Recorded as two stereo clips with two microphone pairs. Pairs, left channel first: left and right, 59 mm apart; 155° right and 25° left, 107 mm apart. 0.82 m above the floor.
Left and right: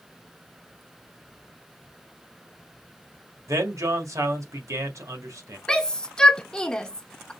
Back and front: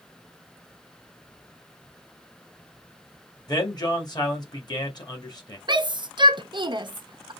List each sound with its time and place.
3.5 s a man speaking: 105° right, 1.6 m
5.7 s a shout: 20° left, 0.7 m